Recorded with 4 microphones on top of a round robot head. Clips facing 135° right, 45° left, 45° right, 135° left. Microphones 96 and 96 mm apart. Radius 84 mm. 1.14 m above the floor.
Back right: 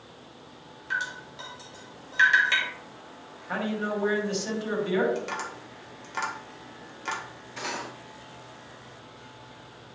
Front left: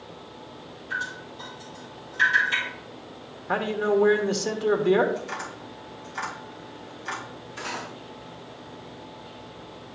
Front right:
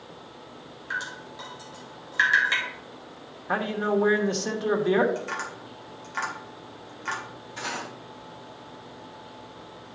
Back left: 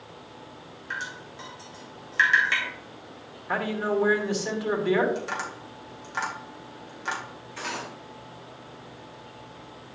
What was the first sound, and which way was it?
Dripping, 125° right.